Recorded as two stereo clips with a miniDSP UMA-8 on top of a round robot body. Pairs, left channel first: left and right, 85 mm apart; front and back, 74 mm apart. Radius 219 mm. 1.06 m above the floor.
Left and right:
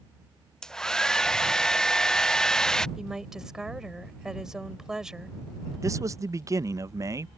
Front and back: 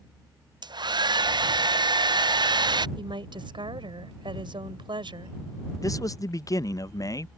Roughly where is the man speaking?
Ahead right.